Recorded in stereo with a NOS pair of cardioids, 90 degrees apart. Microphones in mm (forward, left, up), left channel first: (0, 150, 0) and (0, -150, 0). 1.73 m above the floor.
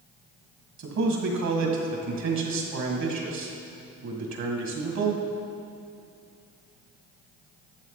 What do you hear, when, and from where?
0.8 s a man speaking: 60° right, 2 m